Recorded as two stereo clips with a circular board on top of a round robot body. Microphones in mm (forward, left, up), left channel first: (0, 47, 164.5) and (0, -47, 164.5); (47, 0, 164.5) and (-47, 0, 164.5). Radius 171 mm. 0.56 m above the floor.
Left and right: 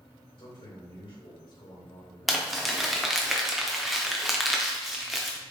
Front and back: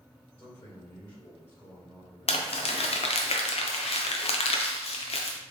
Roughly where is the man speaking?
Ahead left.